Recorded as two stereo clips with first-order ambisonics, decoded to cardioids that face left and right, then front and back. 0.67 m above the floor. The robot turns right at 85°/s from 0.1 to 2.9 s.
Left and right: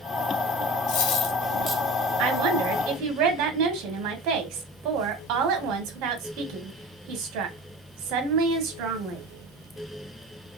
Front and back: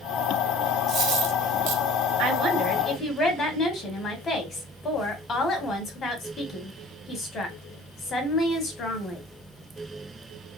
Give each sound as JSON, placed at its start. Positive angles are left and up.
{"t": 0.9, "sound": "a dropped coin", "azimuth_deg": 125, "distance_m": 1.9}
{"t": 2.2, "sound": "a woman speaking", "azimuth_deg": -125, "distance_m": 2.0}